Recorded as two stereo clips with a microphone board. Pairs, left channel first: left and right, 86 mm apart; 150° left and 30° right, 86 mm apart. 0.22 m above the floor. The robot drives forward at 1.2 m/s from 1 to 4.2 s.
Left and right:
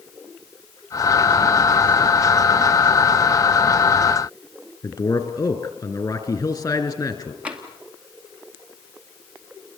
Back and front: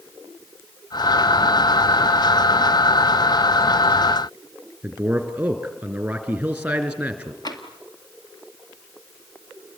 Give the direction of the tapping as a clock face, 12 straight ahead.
6 o'clock.